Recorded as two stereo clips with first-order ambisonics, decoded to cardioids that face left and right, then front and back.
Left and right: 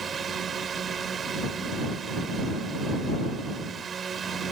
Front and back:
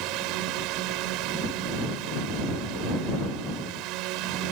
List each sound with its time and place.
0.0 s a drone: 155° right